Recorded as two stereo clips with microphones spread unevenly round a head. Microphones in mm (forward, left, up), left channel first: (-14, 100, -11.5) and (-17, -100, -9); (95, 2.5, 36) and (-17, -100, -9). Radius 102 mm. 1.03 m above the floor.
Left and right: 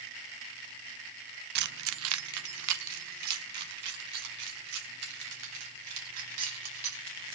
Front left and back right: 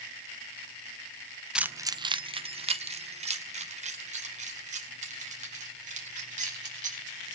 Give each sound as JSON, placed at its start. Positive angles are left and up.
{"t": 1.6, "sound": "keys jangling", "azimuth_deg": -45, "distance_m": 0.5}